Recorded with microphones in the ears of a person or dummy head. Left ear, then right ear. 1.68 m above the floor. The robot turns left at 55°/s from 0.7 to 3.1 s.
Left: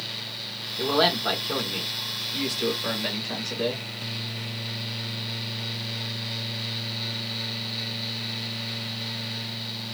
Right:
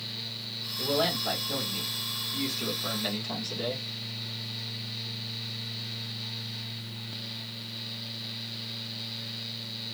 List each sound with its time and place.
0.8 s a man speaking: 85° left, 1.4 m; by 3.9 s 45° right, 1.4 m